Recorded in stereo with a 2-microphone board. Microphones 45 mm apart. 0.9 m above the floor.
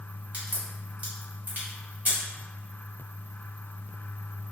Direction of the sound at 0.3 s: 35° right (ahead or behind).